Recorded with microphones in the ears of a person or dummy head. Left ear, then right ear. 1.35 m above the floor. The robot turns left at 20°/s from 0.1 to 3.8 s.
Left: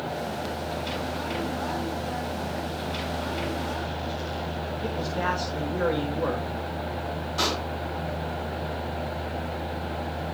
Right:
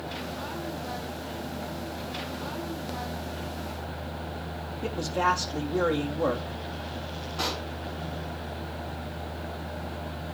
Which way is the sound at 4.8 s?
20° right (ahead or behind).